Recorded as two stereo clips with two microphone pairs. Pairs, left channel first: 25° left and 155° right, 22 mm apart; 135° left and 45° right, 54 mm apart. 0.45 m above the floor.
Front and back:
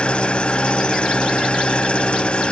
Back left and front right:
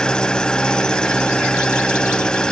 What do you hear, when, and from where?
0.0 s an engine running: 60° left, 0.7 m